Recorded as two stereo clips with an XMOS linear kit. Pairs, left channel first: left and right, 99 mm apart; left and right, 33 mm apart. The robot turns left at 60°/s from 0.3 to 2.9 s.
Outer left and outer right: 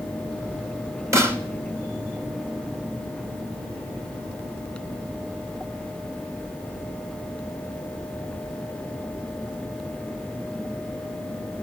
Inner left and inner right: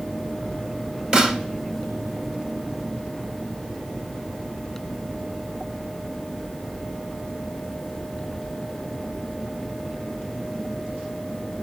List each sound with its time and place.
1.1 s a snare drum: 30° right (ahead or behind), 1.1 m; by 1.4 s 20° right (ahead or behind), 1.1 m